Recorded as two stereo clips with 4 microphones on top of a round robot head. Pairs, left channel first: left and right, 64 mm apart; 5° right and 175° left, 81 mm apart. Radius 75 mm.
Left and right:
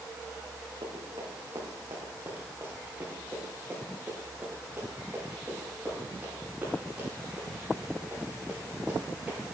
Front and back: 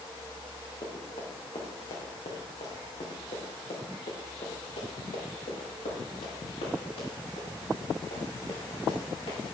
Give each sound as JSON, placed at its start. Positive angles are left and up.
{"t": 0.8, "sound": "running footsteps", "azimuth_deg": -50, "distance_m": 3.5}